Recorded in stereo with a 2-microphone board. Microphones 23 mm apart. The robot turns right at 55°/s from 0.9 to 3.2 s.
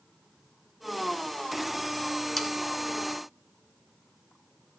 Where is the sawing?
5° left (ahead or behind), 1.2 m; by 2.5 s 5° right (ahead or behind), 1.2 m.